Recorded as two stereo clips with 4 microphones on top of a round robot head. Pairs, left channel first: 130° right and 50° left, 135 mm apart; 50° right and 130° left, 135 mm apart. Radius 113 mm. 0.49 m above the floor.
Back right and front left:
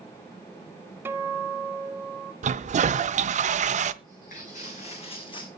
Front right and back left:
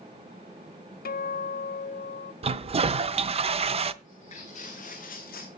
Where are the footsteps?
100° right, 3.5 m; by 5.5 s 70° right, 2.5 m.